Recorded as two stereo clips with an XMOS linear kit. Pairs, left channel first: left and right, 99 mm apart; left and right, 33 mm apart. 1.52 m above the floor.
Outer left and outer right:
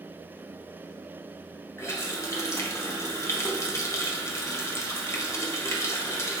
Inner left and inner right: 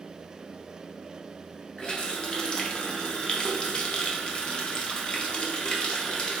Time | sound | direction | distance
1.8 | a running tap | 30° left (ahead or behind) | 0.8 m